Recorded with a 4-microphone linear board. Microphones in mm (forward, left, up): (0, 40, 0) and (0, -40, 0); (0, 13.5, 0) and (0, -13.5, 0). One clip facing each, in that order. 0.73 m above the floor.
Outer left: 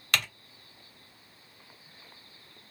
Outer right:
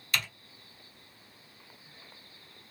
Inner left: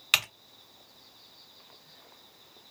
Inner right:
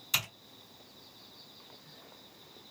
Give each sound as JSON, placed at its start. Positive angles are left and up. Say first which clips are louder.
{"t": 0.1, "sound": "typing on a keyboard", "louder": "outer left 3 dB, inner left 7 dB", "side_deg": 70, "distance_m": 1.3}